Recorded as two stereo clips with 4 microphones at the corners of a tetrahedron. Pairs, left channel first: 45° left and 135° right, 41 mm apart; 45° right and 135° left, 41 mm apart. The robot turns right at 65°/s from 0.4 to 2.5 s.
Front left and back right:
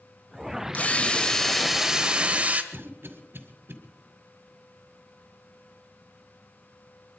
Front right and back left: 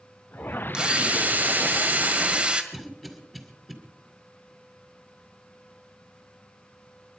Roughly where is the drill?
Left.